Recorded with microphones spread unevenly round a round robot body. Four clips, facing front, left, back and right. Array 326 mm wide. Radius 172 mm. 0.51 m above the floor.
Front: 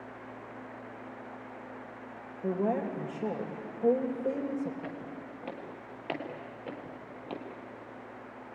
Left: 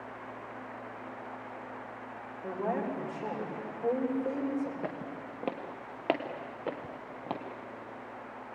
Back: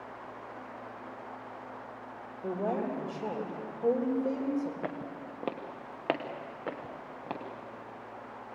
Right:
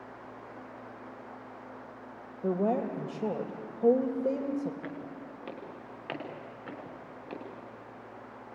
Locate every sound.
2.4 s a woman speaking: 65° right, 3 m
4.8 s footsteps: 145° left, 3.5 m; by 7.4 s 115° left, 4 m